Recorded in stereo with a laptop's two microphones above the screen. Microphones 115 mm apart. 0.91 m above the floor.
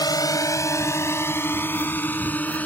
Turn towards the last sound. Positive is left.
turn(degrees=10)  # may be behind; listen again after turning